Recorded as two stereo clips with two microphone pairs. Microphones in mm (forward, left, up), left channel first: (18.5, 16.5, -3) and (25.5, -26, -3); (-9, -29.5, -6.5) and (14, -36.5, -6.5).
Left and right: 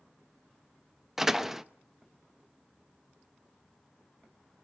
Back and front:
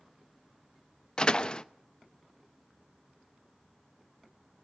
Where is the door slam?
160° right, 0.8 m.